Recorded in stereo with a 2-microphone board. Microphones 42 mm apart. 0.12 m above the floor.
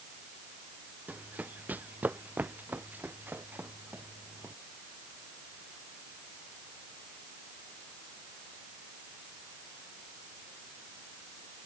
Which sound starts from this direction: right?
Running footsteps, at 1.1 s.